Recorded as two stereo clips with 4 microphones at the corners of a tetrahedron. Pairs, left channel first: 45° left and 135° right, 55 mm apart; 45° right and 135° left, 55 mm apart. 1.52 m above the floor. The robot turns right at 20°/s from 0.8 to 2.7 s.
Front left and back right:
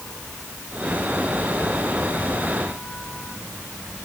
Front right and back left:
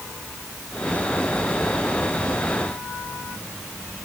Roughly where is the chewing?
I don't hear chewing.